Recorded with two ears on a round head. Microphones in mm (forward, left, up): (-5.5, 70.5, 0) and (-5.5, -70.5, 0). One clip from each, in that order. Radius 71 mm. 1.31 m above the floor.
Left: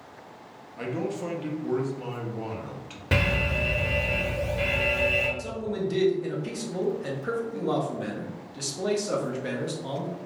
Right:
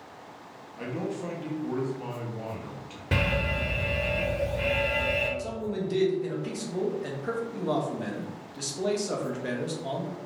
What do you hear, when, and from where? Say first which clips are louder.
0.8 s a man speaking: left 3 dB; 15° left (ahead or behind), 0.6 m
3.1 s an alarm: left 2 dB; 15° left (ahead or behind), 0.7 m
5.4 s a man speaking: left 2 dB; centre (ahead or behind), 0.6 m